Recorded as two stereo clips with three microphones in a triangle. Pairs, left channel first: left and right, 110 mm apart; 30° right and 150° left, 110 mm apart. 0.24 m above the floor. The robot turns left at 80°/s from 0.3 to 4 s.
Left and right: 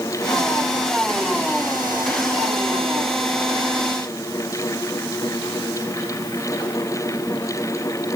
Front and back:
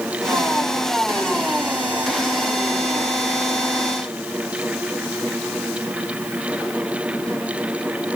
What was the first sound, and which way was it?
Only background noise.